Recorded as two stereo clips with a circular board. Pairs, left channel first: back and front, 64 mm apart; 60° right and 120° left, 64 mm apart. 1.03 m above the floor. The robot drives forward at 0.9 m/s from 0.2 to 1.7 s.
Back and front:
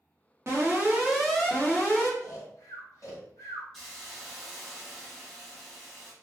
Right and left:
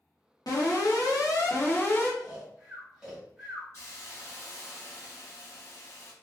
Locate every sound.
0.5 s an alarm: 50° right, 1.1 m; by 2.1 s 115° right, 0.9 m
2.2 s snoring: 160° right, 1.7 m
3.7 s a hiss: 100° right, 1.1 m